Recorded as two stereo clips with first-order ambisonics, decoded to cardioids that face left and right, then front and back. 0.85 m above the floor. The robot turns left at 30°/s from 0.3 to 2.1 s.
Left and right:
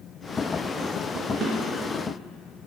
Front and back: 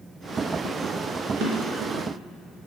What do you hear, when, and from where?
1.4 s a drawer: 150° right, 3 m; by 1.9 s 165° right, 3 m